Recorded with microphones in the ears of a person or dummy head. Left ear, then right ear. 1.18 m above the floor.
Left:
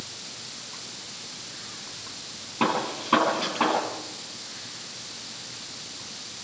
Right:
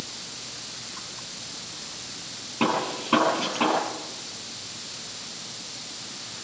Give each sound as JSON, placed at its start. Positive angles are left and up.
{"t": 2.6, "sound": "a gunshot", "side_deg": 10, "distance_m": 9.5}